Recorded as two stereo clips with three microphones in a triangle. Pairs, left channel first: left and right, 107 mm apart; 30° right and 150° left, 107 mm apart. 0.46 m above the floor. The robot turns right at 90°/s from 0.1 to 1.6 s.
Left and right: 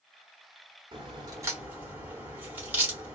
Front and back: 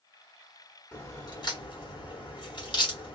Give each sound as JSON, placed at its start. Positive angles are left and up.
{"t": 0.9, "sound": "a crack", "azimuth_deg": -90, "distance_m": 1.3}